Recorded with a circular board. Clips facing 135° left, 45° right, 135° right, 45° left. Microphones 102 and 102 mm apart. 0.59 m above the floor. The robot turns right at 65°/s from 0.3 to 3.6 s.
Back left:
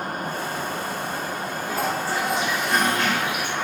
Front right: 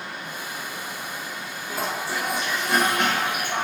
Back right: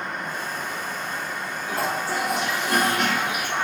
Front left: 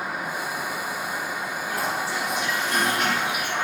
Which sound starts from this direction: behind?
A toilet flushing, at 1.7 s.